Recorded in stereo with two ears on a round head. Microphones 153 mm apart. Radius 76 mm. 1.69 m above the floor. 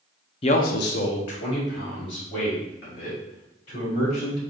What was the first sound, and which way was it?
A man speaking, 30° left (ahead or behind).